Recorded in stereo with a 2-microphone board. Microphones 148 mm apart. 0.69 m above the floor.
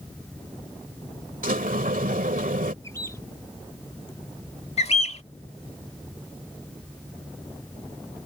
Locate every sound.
1.4 s a sliding door: 70° right (ahead or behind)
2.8 s a bird: 20° left (ahead or behind)
4.8 s a bird: 45° left (ahead or behind)